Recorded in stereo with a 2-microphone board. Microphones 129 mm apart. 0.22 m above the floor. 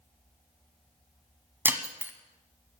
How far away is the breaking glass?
About 1.2 m.